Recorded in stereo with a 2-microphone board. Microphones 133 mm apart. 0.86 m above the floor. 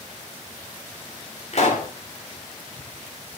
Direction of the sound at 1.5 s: 55° left (ahead or behind).